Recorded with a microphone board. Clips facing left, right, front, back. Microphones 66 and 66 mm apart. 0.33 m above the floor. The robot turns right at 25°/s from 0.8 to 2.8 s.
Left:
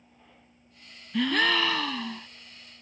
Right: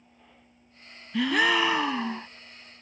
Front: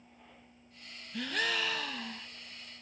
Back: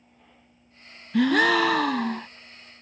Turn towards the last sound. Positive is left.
turn(degrees=-135)